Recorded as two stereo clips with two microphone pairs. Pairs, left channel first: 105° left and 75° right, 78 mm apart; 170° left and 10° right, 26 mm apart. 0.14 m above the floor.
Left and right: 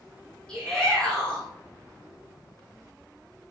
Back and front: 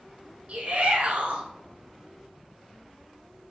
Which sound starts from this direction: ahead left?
A shout, at 0.5 s.